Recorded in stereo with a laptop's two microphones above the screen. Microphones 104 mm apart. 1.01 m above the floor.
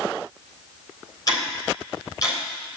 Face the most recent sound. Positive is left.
turn(degrees=40)  # may be behind; listen again after turning